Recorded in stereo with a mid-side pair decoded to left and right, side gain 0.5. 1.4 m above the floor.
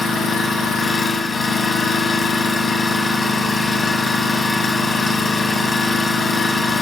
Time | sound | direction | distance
0.0 | an engine running | 40° left | 1.4 m